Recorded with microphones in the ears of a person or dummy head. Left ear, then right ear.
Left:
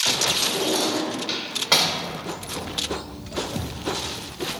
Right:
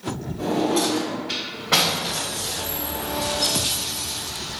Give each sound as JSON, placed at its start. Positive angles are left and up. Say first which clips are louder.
{"t": 0.4, "sound": "a drawer", "louder": "even", "side_deg": 65, "distance_m": 1.2}